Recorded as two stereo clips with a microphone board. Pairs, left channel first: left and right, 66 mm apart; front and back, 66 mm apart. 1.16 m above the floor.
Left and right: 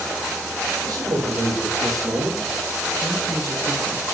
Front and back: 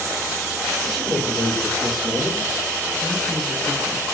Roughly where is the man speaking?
Right.